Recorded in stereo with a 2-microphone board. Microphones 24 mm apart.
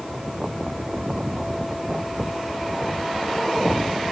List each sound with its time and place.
Only background noise.